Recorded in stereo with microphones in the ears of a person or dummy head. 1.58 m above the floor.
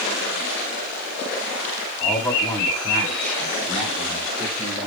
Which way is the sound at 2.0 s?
10° left (ahead or behind).